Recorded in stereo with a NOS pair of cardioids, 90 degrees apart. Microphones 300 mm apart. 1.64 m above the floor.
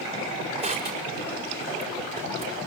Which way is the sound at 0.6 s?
20° right.